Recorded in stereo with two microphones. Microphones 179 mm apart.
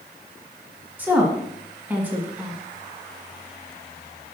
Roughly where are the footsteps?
No footsteps in this recording.